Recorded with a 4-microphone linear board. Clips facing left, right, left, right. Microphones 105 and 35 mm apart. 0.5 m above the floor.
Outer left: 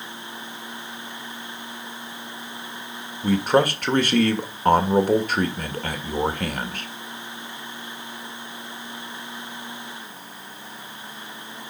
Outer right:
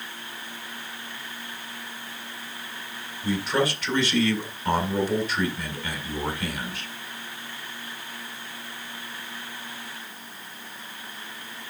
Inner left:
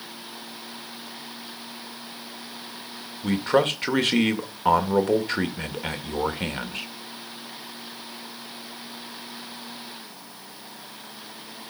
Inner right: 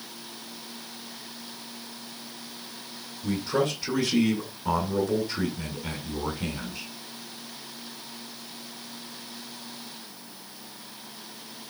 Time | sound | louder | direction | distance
3.2 | a man speaking | outer left 6 dB, inner left 5 dB | 55° left (ahead or behind) | 2.0 m